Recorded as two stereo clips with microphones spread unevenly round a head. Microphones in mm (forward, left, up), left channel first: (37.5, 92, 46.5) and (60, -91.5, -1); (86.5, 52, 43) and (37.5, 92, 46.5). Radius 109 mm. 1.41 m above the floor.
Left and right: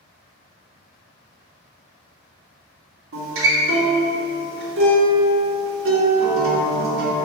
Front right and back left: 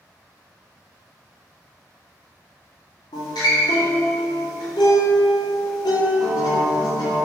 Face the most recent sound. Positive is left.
turn(degrees=-70)